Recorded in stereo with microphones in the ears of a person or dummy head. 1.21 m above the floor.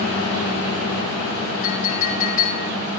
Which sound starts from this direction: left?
A clink, at 1.6 s.